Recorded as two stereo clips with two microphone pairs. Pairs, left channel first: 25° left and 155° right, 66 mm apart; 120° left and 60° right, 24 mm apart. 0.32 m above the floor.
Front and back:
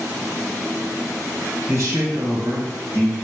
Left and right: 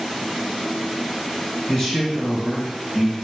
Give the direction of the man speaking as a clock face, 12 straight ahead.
6 o'clock.